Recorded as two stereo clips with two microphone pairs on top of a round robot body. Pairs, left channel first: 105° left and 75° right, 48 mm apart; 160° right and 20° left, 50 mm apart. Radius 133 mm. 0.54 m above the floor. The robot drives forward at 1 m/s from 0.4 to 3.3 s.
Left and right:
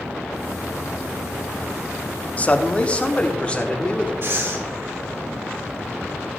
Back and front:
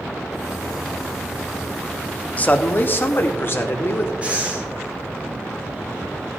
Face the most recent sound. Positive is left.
turn(degrees=-50)